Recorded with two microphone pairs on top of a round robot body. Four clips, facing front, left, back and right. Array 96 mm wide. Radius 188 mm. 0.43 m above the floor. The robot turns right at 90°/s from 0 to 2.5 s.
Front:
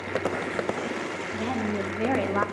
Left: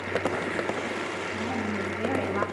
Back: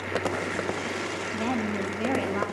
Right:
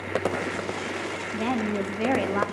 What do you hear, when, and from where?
1.3 s a woman speaking: 135° right, 1.2 m; by 2.5 s 35° right, 1.2 m